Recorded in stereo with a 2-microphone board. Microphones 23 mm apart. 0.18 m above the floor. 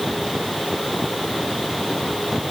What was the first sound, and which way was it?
Only background noise.